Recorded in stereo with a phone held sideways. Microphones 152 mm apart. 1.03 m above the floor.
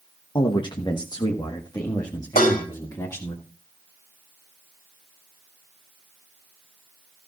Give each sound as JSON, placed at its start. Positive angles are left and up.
{"t": 0.3, "sound": "a man speaking", "side_deg": 30, "distance_m": 1.0}
{"t": 2.4, "sound": "dishes clattering", "side_deg": 65, "distance_m": 3.0}